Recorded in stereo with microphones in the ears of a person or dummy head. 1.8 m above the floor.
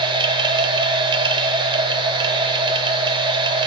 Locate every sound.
0.0 s a machine running: 25° right (ahead or behind), 1.0 m